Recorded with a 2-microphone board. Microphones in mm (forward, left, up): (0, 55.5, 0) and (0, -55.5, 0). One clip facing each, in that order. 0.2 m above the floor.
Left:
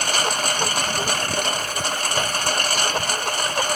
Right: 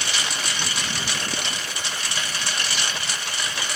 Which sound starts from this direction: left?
A lawn mower, at 0.0 s.